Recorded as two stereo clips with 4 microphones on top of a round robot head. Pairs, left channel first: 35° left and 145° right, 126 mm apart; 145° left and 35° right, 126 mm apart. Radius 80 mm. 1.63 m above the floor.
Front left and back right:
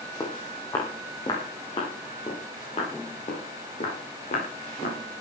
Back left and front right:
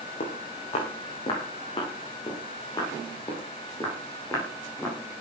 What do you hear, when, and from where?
0.2 s footsteps: 100° left, 7 m; by 5.0 s 75° left, 11 m